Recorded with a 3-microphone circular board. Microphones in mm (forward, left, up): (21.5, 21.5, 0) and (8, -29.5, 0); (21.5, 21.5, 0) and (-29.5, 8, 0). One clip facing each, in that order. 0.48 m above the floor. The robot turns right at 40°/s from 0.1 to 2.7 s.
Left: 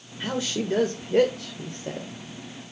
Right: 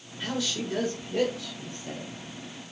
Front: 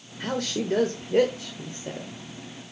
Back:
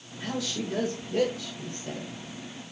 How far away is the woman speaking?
About 1.5 m.